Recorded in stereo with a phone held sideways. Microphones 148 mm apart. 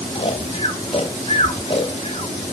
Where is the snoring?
40° left (ahead or behind), 1.0 m.